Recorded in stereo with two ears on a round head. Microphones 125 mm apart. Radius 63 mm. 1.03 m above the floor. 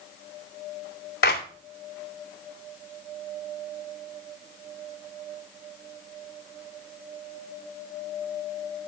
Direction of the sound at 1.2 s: 80° left.